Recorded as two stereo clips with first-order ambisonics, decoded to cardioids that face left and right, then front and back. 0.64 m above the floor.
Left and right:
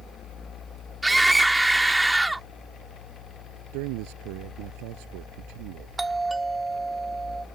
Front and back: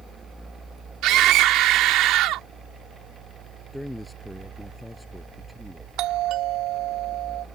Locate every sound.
1.0 s a scream: 175° right
3.7 s a man speaking: 90° right
6.0 s a doorbell: 170° right